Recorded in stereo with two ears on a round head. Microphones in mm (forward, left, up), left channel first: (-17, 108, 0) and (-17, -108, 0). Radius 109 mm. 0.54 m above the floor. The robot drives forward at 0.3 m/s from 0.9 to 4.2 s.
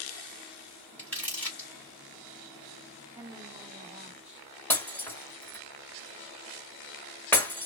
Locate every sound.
1.0 s crumpling: 5° left (ahead or behind), 1.5 m
3.1 s a woman speaking: 5° right (ahead or behind), 1.6 m
4.7 s breaking glass: 10° left (ahead or behind), 1.3 m